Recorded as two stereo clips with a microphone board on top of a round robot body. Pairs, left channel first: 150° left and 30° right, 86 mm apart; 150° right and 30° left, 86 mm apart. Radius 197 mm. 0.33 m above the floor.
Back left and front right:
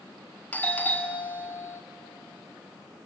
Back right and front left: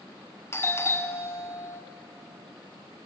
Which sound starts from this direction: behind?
A doorbell, at 0.5 s.